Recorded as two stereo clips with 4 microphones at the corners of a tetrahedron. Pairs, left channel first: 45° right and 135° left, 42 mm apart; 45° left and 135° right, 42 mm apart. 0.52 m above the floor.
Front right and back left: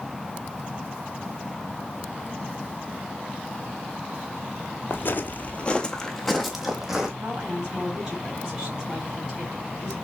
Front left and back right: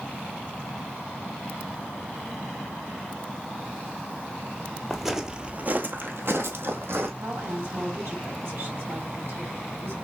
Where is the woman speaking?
150° right, 3 m.